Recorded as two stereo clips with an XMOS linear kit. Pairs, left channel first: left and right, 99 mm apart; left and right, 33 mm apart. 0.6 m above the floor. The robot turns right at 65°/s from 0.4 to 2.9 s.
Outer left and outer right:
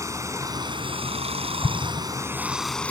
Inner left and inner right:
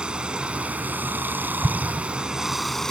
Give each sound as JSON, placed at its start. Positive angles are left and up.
{"t": 0.0, "sound": "running water", "azimuth_deg": -150}
{"t": 1.6, "sound": "an explosion", "side_deg": 10}